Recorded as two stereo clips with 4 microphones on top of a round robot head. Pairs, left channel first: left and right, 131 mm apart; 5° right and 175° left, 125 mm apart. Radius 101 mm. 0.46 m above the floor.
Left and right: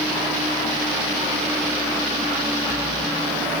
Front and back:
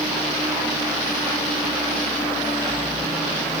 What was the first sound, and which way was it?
Only background noise.